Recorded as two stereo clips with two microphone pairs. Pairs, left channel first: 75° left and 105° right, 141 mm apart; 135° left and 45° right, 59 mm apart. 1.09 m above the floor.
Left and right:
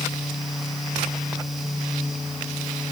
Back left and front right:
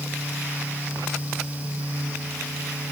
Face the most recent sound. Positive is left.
No sound to turn to.